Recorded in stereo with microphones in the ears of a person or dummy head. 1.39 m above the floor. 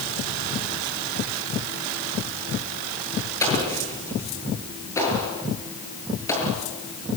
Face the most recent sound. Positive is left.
turn(degrees=20)  # may be behind; listen again after turning